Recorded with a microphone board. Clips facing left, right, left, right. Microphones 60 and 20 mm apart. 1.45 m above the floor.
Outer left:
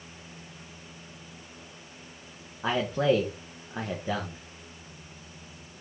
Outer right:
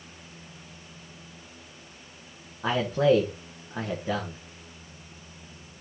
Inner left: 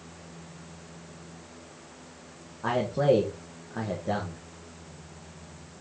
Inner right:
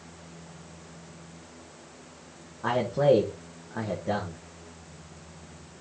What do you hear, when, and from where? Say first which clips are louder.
2.6 s a man speaking: outer right 3 dB, inner right 1 dB; centre (ahead or behind), 1.7 m